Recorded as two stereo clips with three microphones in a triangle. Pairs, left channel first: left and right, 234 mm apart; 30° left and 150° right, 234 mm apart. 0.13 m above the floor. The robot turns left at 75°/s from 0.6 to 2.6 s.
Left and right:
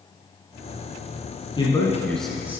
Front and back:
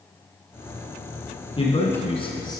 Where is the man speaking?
55° left, 1.3 m; by 2.6 s 25° right, 1.3 m.